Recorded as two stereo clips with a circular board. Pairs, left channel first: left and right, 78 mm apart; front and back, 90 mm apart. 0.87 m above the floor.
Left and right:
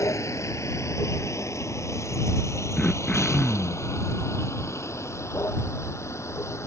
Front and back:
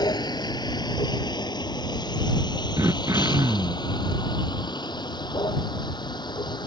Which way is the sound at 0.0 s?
40° left.